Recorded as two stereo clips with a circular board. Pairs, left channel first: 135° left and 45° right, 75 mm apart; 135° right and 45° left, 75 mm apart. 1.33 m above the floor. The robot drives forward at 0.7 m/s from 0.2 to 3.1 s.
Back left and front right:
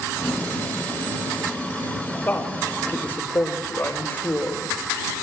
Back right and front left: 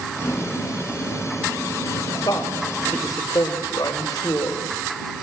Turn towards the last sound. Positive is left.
turn(degrees=-165)